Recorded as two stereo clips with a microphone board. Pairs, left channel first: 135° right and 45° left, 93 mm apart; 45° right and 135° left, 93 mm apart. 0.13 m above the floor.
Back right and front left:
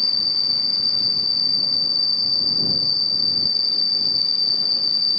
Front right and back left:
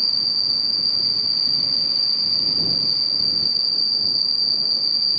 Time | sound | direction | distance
0.0 | an insect | 135° right | ?